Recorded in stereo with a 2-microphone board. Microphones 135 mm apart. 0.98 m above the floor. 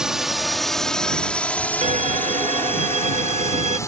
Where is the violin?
60° right (ahead or behind).